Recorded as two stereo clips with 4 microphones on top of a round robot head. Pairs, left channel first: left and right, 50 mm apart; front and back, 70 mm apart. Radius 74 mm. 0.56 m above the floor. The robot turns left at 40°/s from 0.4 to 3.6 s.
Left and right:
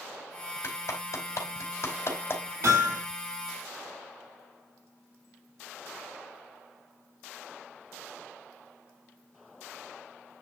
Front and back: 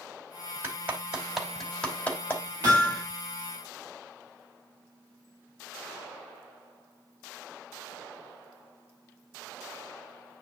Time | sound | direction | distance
0.6 | a clap | 125° left | 2.5 m
2.6 | hammering | 125° right | 5 m